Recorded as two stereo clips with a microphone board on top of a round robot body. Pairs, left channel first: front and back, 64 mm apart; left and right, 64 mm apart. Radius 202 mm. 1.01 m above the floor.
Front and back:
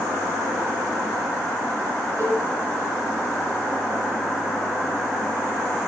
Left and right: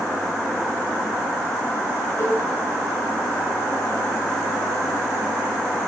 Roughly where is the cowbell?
Behind left.